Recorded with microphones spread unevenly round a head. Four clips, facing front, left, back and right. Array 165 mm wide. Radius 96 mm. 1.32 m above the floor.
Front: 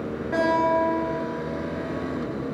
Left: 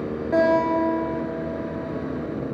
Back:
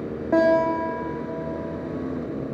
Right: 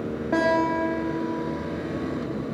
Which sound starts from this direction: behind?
A guitar, at 0.3 s.